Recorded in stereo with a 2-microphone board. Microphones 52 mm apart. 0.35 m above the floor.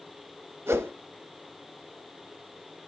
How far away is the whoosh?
About 0.7 m.